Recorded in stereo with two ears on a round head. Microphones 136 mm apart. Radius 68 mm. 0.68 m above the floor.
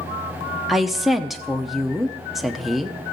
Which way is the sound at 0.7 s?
Centre (ahead or behind).